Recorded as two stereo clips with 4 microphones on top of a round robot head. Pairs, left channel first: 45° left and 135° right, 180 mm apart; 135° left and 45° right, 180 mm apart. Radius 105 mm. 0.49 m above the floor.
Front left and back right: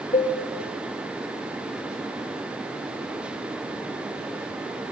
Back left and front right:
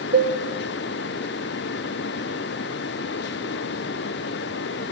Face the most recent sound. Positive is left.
turn(degrees=-15)